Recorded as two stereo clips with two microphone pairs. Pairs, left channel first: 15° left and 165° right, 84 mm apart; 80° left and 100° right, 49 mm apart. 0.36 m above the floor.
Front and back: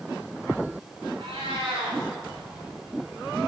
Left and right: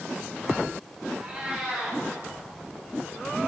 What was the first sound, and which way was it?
A cat meowing, straight behind.